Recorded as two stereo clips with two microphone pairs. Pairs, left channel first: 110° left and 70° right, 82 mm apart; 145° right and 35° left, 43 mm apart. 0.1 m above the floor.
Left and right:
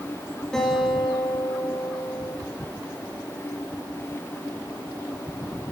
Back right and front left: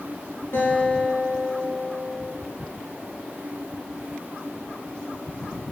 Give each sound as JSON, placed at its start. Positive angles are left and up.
{"t": 0.5, "sound": "a guitar", "azimuth_deg": -165, "distance_m": 6.5}